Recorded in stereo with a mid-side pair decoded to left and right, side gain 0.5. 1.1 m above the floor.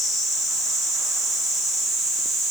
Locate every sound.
Only background noise.